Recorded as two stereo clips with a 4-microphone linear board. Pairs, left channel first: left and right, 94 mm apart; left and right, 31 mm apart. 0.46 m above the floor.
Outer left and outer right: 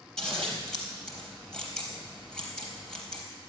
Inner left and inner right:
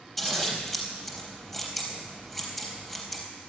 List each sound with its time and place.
0.2 s scissors: 5° left (ahead or behind), 4 m